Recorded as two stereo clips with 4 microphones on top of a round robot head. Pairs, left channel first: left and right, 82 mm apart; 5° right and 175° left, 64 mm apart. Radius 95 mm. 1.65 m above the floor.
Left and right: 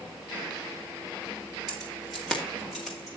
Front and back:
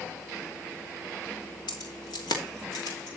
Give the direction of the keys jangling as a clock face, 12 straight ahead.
12 o'clock.